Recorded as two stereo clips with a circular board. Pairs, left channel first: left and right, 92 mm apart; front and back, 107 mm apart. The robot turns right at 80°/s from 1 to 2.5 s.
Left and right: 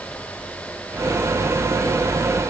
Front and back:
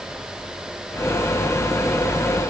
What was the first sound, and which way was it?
Only background noise.